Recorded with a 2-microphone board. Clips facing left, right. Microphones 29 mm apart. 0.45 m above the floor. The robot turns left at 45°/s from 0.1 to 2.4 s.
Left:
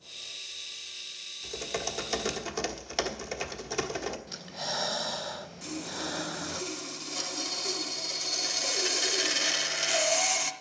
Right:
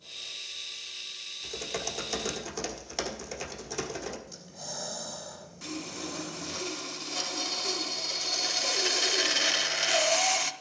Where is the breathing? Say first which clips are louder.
Left 7 dB; 55° left (ahead or behind), 0.5 m.